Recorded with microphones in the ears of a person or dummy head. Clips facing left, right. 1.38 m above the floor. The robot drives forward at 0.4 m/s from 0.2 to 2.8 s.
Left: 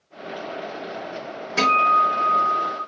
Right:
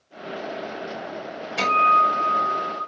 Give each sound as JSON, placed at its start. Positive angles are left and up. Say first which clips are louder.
{"t": 1.6, "sound": "a guitar", "louder": "left 1 dB", "side_deg": 80, "distance_m": 2.0}